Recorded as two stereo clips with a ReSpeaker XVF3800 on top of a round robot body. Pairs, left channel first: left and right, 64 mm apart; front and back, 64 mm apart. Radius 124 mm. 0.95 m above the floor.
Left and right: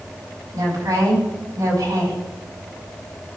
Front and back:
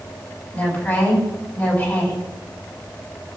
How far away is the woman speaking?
About 7 m.